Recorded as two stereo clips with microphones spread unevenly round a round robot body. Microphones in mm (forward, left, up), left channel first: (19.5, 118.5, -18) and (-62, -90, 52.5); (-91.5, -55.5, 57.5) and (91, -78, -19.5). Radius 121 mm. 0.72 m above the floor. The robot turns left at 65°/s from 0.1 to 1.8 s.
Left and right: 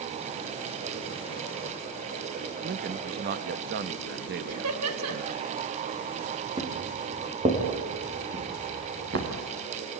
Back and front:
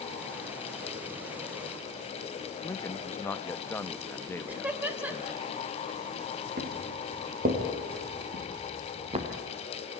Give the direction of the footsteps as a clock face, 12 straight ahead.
1 o'clock.